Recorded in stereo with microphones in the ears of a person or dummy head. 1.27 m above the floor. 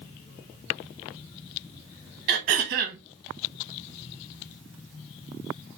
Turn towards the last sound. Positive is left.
turn(degrees=-50)  # may be behind; listen again after turning